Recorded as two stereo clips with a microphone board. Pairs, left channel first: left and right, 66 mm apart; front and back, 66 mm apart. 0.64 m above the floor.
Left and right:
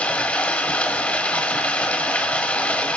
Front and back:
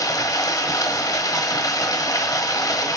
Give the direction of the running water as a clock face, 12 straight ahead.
11 o'clock.